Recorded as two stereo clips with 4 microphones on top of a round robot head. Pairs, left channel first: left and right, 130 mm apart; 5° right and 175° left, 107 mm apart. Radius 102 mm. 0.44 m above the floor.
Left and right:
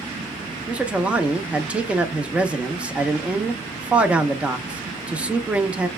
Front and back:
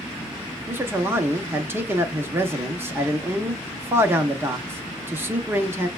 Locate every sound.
0.7 s a man speaking: 155° right, 0.8 m